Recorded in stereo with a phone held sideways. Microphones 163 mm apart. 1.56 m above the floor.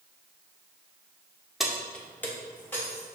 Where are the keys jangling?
Centre (ahead or behind), 0.5 m; by 3.1 s 15° left (ahead or behind), 1.3 m.